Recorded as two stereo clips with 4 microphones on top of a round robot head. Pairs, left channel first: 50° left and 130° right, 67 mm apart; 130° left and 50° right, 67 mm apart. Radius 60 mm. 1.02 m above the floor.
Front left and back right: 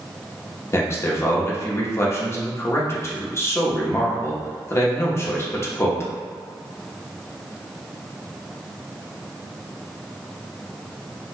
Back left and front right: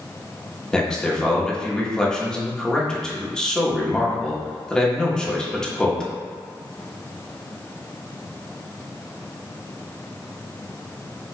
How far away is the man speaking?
About 0.8 m.